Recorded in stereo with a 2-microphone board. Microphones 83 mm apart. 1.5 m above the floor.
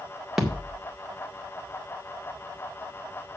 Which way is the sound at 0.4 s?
5° right (ahead or behind).